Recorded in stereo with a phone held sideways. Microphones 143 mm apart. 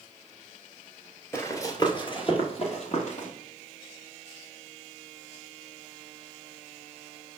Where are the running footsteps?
20° left (ahead or behind), 1.4 m; by 3.3 s 55° left (ahead or behind), 1.9 m.